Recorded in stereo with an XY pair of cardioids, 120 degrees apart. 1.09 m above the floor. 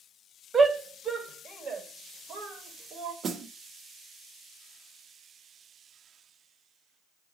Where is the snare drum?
50° right, 1.0 m.